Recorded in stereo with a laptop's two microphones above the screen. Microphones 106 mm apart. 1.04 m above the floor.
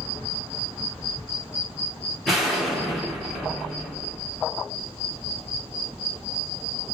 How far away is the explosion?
About 1.7 m.